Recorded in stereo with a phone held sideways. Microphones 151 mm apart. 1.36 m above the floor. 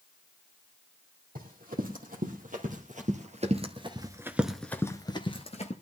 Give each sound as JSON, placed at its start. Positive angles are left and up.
{"t": 1.4, "sound": "running footsteps", "side_deg": -70, "distance_m": 4.0}